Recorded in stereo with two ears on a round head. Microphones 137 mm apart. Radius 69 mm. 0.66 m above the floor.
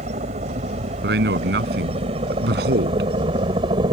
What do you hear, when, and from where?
0.0 s a helicopter: 45° right (ahead or behind); by 3.9 s 30° right (ahead or behind)
1.0 s a man speaking: 80° right